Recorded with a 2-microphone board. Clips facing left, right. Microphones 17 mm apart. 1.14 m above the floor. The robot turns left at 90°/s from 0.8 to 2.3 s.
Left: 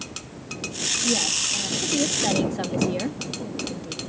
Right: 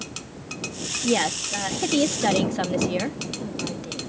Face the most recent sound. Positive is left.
turn(degrees=-160)